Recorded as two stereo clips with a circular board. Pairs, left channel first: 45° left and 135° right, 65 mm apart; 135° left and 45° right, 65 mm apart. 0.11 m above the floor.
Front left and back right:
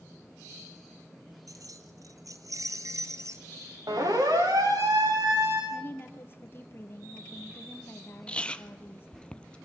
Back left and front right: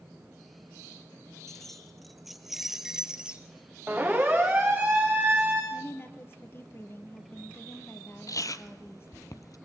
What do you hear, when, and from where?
1.5 s keys jangling: 140° right, 2.5 m; by 3.5 s 115° right, 1.8 m
3.9 s a siren: 120° right, 8 m
5.7 s a woman speaking: 90° left, 2.5 m
8.3 s chewing: 115° left, 0.8 m